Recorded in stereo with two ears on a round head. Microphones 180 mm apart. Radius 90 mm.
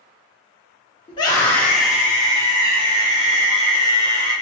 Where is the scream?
25° left (ahead or behind), 0.9 m; by 4.3 s 50° right (ahead or behind), 2.0 m.